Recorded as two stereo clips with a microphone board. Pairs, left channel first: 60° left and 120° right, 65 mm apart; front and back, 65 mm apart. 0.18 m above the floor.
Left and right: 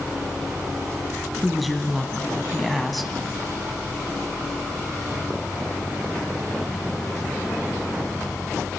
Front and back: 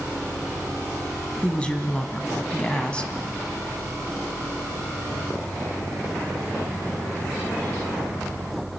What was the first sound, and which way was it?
A woman speaking, 30° right.